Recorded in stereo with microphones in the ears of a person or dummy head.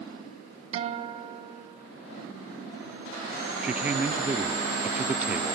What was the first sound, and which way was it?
A guitar, 40° right (ahead or behind).